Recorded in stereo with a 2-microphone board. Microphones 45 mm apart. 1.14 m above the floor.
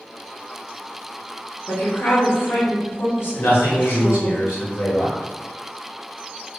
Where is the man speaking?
60° left (ahead or behind), 1.2 m.